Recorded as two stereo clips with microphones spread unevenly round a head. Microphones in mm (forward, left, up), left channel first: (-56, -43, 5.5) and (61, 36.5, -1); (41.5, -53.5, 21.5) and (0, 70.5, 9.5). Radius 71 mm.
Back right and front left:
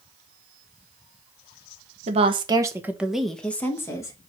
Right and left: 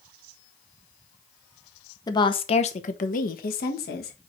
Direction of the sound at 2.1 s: 10° right.